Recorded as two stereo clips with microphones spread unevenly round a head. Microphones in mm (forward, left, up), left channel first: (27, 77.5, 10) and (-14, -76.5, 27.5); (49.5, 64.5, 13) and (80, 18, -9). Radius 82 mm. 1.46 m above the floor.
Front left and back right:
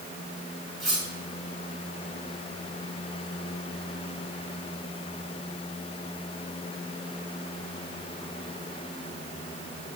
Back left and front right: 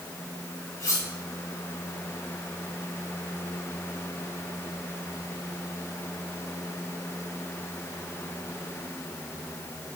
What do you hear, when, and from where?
0.8 s cutlery clinking: 165° left, 2.5 m